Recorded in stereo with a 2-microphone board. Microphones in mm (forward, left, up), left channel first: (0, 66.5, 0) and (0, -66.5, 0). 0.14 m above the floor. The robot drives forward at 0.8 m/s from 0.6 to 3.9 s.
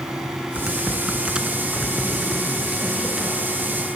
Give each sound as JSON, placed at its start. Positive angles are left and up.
{"t": 0.6, "sound": "typing on a keyboard", "side_deg": -10, "distance_m": 1.6}